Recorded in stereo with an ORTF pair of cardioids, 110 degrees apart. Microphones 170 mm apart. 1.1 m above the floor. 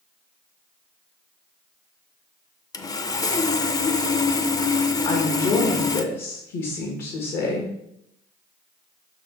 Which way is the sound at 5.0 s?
70° left.